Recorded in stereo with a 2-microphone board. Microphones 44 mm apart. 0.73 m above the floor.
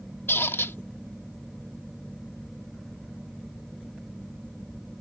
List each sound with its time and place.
0.3 s a squeak: 65° left (ahead or behind)